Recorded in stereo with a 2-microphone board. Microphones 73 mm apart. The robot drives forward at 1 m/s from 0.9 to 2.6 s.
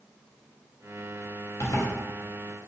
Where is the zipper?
45° left (ahead or behind), 1.6 m; by 1.9 s 40° left (ahead or behind), 1.8 m.